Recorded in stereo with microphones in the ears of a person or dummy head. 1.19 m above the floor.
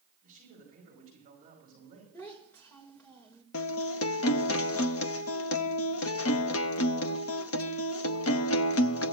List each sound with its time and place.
0.2 s a man speaking: 40° right (ahead or behind), 10 m
2.1 s a child speaking: 10° left (ahead or behind), 3.5 m
3.5 s a guitar: 65° left (ahead or behind), 0.7 m